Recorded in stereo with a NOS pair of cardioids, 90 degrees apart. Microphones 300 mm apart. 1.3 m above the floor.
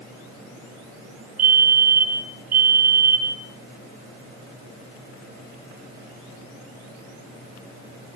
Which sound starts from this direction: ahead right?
A fire alarm, at 1.4 s.